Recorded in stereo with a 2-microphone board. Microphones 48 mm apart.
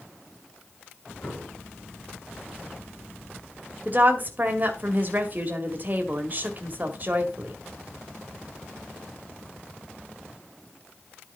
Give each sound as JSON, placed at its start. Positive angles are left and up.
{"t": 1.2, "sound": "an explosion", "side_deg": 25, "distance_m": 3.5}
{"t": 3.9, "sound": "a woman speaking", "side_deg": -40, "distance_m": 1.9}